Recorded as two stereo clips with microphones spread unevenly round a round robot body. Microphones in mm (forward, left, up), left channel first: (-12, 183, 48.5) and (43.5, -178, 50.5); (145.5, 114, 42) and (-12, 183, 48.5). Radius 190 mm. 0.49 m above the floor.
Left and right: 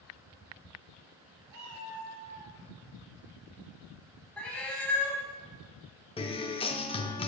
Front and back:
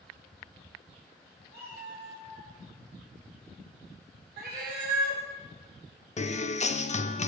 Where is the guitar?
25° left, 0.7 m.